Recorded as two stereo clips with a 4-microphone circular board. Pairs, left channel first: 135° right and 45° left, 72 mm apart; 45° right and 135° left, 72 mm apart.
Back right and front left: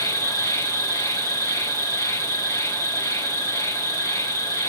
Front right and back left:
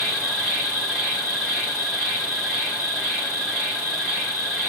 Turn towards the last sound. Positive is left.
turn(degrees=-150)